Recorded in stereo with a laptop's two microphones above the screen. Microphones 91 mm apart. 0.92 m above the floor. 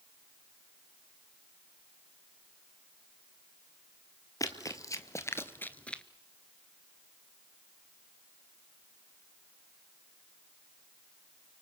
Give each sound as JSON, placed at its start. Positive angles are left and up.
{"t": 4.4, "sound": "running footsteps", "side_deg": 40, "distance_m": 1.4}